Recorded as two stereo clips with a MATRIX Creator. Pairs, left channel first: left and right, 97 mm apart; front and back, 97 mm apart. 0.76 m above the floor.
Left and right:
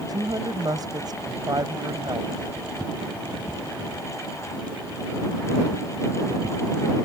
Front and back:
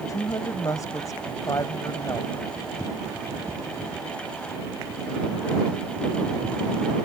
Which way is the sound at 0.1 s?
50° right.